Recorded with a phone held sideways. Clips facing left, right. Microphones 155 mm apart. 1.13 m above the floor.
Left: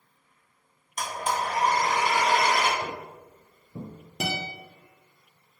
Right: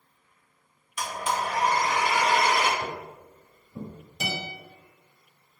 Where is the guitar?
65° left (ahead or behind), 1.6 m.